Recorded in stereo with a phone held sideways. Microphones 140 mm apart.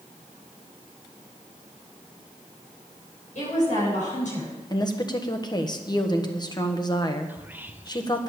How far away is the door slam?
No door slam in this recording.